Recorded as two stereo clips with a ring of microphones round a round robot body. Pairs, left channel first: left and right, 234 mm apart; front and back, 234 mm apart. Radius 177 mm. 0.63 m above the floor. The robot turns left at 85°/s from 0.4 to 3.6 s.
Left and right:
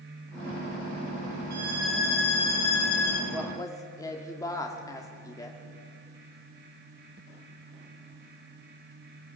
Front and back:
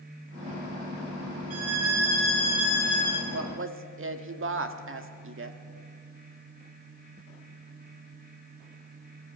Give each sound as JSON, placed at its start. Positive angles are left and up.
{"t": 1.5, "sound": "a violin", "azimuth_deg": -150, "distance_m": 3.5}
{"t": 3.3, "sound": "a woman speaking", "azimuth_deg": -170, "distance_m": 1.5}